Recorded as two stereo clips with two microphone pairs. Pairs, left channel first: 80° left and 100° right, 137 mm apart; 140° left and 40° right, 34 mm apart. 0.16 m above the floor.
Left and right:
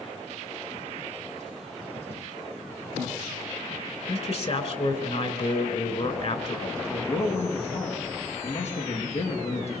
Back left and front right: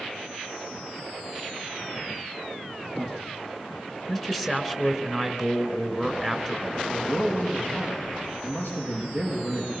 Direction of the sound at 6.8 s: 115° left.